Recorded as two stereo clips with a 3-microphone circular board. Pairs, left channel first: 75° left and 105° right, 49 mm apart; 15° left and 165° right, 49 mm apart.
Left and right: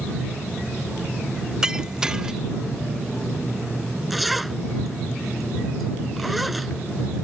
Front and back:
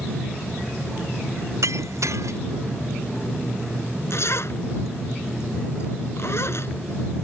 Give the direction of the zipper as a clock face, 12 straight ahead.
12 o'clock.